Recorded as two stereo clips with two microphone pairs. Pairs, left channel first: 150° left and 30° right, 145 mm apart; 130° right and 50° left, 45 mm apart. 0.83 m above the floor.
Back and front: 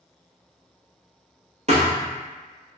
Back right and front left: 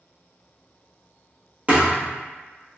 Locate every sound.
1.7 s a thud: 5° right, 1.4 m